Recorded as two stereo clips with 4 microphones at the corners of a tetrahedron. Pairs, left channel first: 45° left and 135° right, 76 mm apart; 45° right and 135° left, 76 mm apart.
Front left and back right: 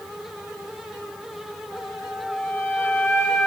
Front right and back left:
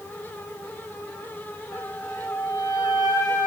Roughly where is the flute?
Ahead.